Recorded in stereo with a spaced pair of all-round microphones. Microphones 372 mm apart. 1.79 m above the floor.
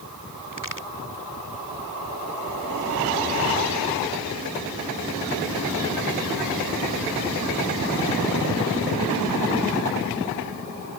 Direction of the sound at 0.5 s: 60° right (ahead or behind).